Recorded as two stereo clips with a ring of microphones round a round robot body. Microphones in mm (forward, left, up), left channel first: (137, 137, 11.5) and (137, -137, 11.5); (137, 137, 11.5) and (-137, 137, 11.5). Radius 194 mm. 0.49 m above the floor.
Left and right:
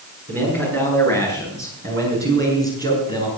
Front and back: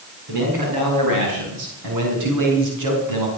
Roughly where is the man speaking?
Behind right.